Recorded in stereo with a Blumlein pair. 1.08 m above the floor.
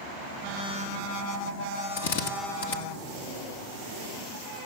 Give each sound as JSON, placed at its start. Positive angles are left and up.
{"t": 2.0, "sound": "a drill", "azimuth_deg": 60, "distance_m": 2.5}